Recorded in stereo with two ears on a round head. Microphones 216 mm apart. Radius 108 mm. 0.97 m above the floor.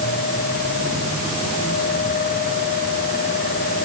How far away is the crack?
No crack in this recording.